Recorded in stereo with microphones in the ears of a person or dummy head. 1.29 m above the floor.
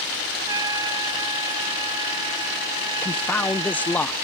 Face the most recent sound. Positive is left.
turn(degrees=5)  # may be behind; listen again after turning